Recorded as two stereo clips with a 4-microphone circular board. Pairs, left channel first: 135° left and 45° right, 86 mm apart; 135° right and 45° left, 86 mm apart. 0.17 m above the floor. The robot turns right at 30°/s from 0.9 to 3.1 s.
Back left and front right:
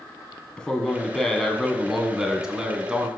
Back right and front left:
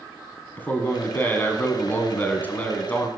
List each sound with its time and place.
0.6 s a man speaking: 160° right, 1.2 m; by 3.1 s 95° right, 1.2 m